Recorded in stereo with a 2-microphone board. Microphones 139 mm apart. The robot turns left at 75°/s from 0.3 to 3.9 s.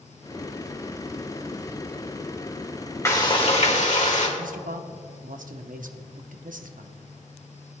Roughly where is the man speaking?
Right.